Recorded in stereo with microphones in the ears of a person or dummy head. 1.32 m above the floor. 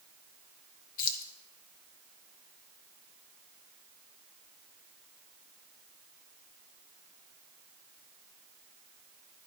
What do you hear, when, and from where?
1.0 s keys jangling: 55° left (ahead or behind), 0.7 m